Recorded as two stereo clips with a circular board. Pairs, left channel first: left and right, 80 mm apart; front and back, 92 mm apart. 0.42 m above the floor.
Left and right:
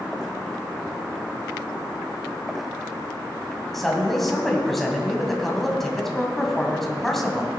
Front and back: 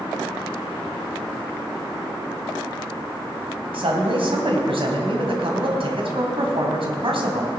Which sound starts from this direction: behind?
A man speaking, at 3.7 s.